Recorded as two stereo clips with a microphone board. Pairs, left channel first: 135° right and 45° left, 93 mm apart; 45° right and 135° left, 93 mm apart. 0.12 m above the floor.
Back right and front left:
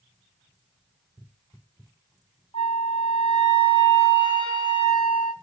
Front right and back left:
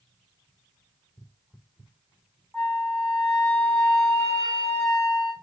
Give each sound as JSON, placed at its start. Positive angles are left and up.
{"t": 2.5, "sound": "a flute", "azimuth_deg": -130, "distance_m": 5.5}